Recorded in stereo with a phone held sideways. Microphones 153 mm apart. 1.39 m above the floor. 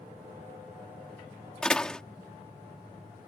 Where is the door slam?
5° left (ahead or behind).